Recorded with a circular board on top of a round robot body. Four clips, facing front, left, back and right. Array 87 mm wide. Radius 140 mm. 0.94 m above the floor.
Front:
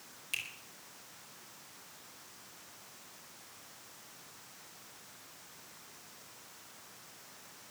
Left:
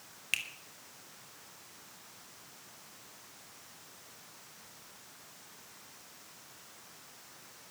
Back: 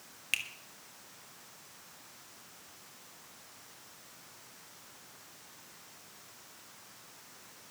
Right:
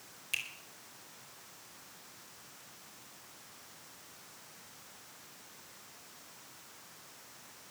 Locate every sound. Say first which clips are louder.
0.3 s a finger snap: left 3 dB, back 5 dB; 140° left, 2.5 m